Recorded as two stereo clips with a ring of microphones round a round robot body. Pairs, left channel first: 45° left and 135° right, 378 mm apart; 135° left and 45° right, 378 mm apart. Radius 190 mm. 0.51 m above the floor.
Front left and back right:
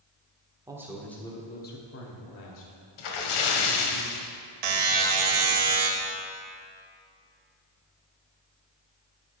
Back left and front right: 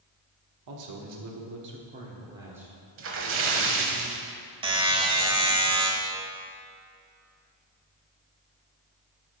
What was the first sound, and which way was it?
A man speaking, 55° right.